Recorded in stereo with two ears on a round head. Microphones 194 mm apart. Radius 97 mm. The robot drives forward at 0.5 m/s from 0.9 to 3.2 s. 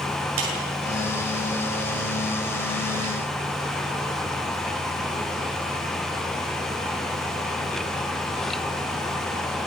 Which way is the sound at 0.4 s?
70° right (ahead or behind).